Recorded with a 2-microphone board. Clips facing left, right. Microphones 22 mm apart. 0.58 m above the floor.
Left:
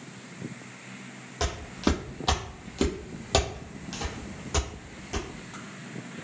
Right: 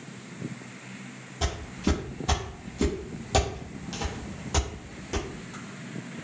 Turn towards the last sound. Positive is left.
turn(degrees=-20)  # may be behind; listen again after turning